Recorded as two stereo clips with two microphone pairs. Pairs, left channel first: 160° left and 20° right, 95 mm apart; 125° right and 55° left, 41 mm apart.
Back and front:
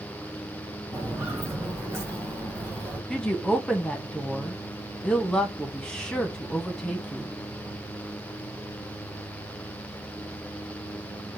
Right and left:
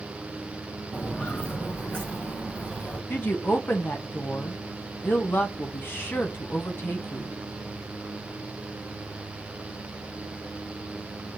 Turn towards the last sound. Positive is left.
turn(degrees=-120)